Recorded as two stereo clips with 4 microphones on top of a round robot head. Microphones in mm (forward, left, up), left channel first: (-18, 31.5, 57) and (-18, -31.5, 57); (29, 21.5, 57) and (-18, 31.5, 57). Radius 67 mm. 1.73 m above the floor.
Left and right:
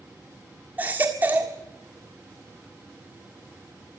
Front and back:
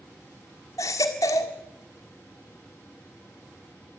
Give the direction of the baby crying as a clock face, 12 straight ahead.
1 o'clock.